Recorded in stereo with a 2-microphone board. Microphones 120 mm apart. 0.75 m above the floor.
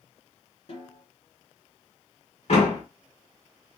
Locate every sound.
0.7 s a snare drum: 50° left (ahead or behind), 2.5 m
2.5 s a door slam: 55° left (ahead or behind), 2.0 m